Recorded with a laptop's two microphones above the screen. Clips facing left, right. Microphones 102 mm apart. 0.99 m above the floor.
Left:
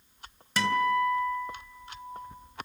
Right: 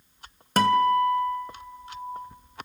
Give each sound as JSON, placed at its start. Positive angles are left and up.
{"t": 0.6, "sound": "a guitar", "side_deg": -50, "distance_m": 2.5}